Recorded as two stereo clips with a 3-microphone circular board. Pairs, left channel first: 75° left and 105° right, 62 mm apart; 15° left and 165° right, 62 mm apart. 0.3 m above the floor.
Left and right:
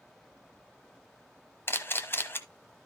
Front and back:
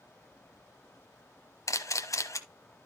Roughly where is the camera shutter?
Ahead left.